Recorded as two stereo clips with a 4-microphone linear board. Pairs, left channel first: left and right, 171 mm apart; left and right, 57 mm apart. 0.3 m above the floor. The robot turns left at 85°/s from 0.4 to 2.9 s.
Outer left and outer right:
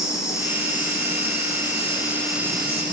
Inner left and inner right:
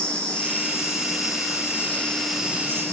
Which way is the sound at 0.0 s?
160° left.